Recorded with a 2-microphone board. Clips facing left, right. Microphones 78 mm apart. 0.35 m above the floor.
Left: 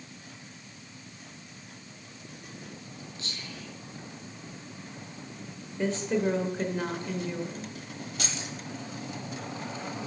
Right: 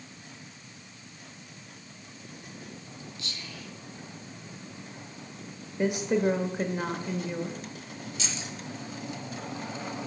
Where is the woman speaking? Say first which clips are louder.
Right 2 dB; 15° right (ahead or behind), 1.0 m.